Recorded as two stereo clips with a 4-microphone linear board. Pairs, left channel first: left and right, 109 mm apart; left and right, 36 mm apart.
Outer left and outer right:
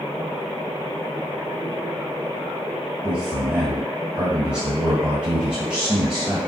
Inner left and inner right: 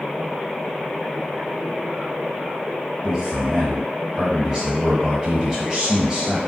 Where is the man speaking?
10° right (ahead or behind), 1.4 m.